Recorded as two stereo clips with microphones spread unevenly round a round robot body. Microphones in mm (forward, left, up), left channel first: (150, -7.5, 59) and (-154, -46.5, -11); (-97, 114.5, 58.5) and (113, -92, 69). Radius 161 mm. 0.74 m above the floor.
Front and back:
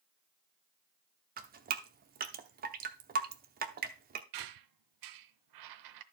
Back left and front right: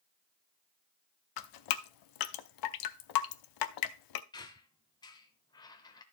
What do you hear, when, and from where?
1.4 s dripping: 125° left, 0.7 m
4.3 s a squeak: 145° right, 0.7 m